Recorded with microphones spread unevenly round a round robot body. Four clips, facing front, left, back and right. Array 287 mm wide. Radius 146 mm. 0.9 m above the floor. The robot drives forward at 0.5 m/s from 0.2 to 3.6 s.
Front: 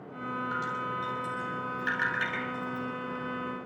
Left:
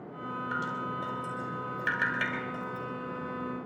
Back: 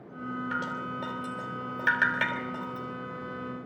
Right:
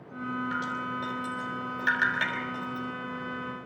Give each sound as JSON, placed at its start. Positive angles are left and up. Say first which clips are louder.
{"t": 0.5, "sound": "dripping", "louder": "right 1 dB, front 1 dB", "azimuth_deg": 175, "distance_m": 3.0}